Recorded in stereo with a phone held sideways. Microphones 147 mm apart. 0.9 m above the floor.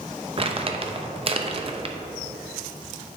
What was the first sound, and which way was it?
Crumpling, 40° right (ahead or behind).